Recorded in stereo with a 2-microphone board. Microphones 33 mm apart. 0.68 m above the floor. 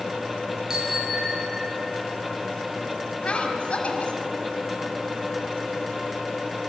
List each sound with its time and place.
0.7 s a bicycle bell: 25° right (ahead or behind), 9.5 m; by 1.9 s 20° right (ahead or behind), 9 m
3.2 s a woman speaking: 40° left (ahead or behind), 5.5 m